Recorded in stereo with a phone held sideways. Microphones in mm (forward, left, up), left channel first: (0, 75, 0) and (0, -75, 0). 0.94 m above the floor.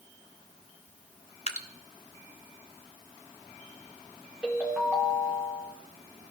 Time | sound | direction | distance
1.5 | dripping | 45° left (ahead or behind) | 0.6 m
4.4 | a ringtone | 5° right (ahead or behind) | 2 m